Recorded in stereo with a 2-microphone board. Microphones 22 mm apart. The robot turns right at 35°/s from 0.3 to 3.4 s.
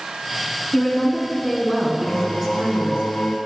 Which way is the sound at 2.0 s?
70° left.